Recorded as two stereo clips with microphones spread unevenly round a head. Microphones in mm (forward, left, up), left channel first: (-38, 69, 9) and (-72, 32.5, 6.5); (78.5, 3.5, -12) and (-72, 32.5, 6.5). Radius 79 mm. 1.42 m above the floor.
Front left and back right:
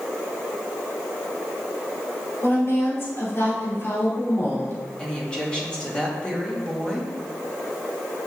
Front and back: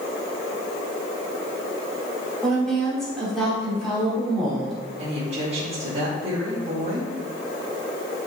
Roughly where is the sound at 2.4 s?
Left.